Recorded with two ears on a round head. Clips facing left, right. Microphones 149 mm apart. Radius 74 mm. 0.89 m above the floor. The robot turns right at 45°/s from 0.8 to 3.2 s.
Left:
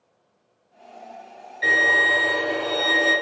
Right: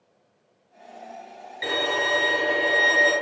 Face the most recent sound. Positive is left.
turn(degrees=10)